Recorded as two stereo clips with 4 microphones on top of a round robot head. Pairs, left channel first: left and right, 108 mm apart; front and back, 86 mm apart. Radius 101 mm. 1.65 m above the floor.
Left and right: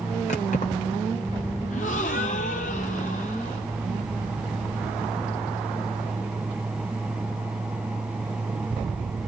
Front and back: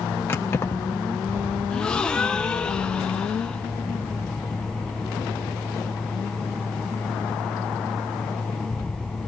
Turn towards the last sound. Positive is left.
turn(degrees=75)